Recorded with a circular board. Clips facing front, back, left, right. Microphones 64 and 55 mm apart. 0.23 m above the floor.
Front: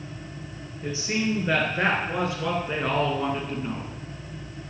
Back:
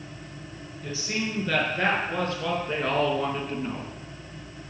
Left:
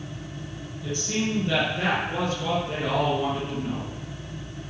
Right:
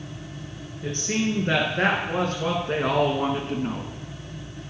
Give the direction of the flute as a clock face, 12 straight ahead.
I don't hear a flute.